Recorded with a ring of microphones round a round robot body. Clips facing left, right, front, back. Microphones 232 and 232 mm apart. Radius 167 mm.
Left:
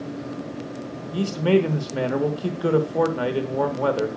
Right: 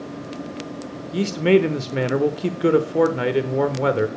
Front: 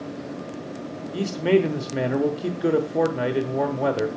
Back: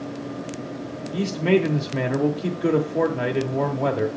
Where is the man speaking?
75° right, 0.9 m.